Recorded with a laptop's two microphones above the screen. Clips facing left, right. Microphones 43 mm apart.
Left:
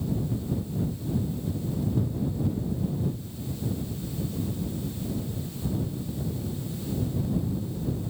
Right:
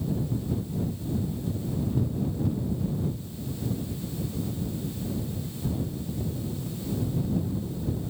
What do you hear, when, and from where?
Only background noise.